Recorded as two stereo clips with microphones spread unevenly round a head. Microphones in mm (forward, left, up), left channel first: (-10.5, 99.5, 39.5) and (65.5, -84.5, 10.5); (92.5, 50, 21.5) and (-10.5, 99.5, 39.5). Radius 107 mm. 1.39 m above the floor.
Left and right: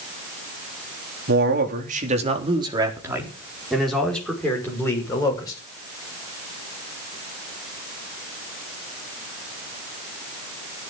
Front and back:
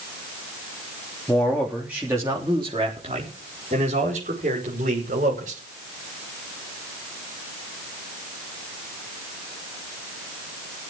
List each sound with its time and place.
1.3 s a man speaking: 105° right, 3.5 m; by 5.6 s 175° right, 7 m